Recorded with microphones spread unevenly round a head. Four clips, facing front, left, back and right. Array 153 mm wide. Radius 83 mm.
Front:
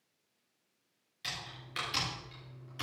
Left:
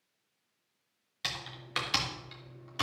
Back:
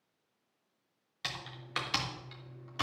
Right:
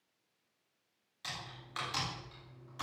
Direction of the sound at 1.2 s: 125° left.